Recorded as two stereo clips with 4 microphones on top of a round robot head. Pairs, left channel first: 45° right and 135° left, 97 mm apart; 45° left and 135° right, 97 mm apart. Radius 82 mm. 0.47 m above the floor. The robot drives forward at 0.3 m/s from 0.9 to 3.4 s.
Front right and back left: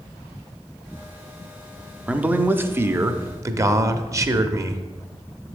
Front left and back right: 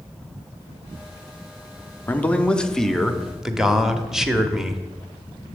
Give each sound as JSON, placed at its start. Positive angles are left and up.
{"t": 2.1, "sound": "a man speaking", "azimuth_deg": 80, "distance_m": 0.7}